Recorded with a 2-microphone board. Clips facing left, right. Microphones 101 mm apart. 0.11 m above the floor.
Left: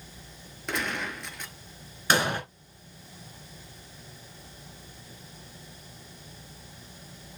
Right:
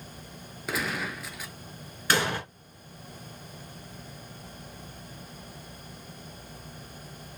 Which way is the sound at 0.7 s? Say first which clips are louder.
Even; 5° right (ahead or behind).